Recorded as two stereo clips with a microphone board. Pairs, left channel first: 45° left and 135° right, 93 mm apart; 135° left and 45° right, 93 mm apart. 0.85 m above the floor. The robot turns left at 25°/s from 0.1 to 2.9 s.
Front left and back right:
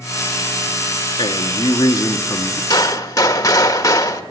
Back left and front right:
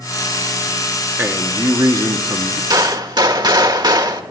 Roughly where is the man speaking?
Ahead.